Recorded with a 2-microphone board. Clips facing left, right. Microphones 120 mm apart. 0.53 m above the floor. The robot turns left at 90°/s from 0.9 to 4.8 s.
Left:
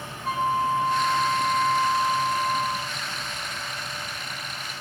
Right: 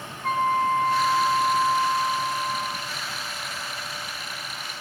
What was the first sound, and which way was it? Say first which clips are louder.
A flute: right 2 dB; 95° right.